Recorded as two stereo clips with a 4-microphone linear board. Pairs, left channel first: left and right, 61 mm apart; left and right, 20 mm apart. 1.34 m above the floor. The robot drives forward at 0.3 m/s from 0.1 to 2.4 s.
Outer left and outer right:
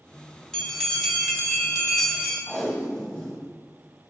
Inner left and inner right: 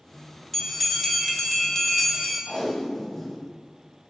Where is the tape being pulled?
5° left (ahead or behind), 1.6 m.